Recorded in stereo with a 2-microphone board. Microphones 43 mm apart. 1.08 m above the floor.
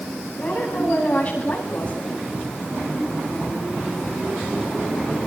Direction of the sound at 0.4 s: 30° left (ahead or behind).